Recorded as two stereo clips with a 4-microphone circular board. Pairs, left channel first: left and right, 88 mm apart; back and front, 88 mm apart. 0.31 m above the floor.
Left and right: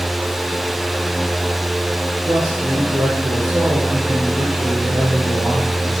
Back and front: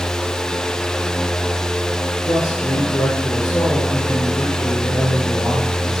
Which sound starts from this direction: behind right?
A man speaking, at 2.3 s.